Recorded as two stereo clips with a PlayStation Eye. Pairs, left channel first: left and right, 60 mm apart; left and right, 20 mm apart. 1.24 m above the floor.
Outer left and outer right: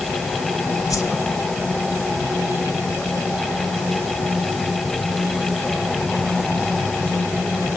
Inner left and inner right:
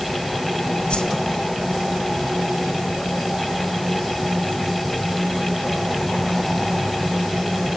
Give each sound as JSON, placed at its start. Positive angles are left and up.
{"t": 0.9, "sound": "a whoosh", "side_deg": 65, "distance_m": 2.0}